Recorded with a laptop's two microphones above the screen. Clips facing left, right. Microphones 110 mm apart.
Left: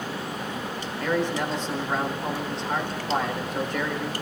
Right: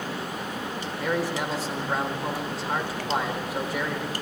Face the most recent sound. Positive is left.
turn(degrees=-10)  # may be behind; listen again after turning